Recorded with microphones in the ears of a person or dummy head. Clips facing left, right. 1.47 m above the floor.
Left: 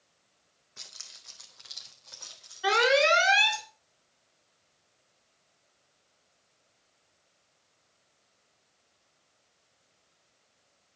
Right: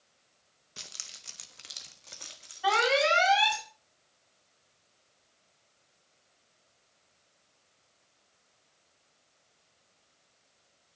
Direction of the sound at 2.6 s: 30° left (ahead or behind).